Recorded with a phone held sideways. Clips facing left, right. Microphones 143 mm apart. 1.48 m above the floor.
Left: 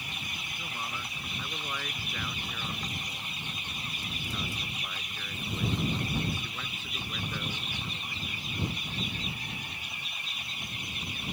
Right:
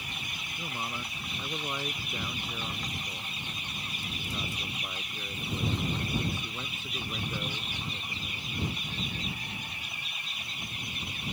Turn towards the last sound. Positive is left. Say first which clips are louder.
# right 3 dB
turn(degrees=-20)  # may be behind; listen again after turning